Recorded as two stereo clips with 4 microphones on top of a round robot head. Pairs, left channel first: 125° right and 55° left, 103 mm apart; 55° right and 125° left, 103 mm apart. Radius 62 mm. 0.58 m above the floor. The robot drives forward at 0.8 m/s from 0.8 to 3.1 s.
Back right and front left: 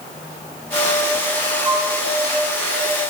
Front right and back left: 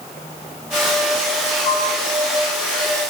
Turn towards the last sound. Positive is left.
turn(degrees=-10)